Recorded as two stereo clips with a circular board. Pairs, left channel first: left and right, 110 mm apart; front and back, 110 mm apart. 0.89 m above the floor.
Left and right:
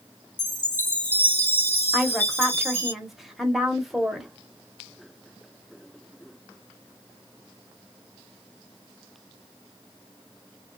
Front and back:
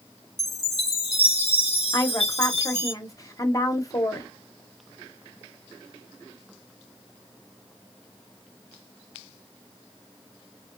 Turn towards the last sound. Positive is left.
turn(degrees=-5)